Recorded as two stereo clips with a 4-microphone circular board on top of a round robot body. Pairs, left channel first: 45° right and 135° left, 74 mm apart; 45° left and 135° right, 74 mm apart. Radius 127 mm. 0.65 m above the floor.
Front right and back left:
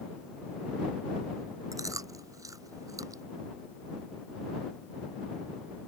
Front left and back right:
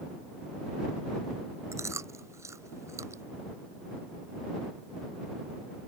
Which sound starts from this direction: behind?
Chewing, at 1.7 s.